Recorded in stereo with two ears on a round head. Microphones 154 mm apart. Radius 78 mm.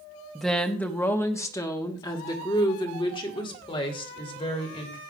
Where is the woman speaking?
Centre (ahead or behind), 1.2 m; by 5.0 s 30° left (ahead or behind), 3.5 m.